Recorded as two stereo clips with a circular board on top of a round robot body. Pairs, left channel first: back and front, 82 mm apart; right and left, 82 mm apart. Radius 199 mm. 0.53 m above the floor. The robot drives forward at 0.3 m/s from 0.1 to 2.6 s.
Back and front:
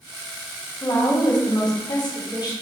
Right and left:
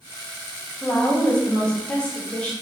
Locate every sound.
0.8 s a woman speaking: 155° right, 1.0 m; by 2.5 s 165° right, 1.4 m